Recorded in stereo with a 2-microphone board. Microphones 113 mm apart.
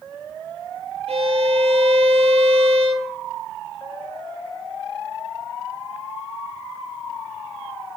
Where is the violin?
65° right (ahead or behind), 2 m.